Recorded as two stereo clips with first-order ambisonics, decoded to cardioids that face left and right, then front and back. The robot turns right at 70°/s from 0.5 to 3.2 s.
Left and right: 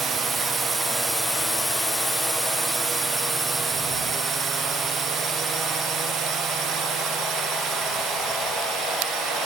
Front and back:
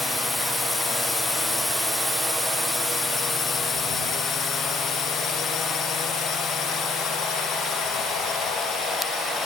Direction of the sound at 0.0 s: 70° right.